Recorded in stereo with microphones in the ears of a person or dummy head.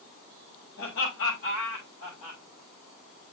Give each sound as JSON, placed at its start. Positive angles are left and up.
{"t": 0.8, "sound": "laughter", "side_deg": 70, "distance_m": 8.0}